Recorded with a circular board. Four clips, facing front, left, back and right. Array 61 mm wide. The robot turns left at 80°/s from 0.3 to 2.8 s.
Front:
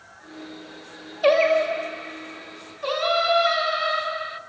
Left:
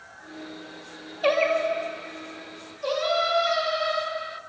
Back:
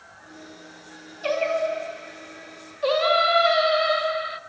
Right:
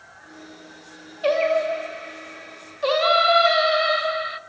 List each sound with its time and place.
1.2 s singing: 15° left, 1.5 m; by 4.4 s 110° right, 1.5 m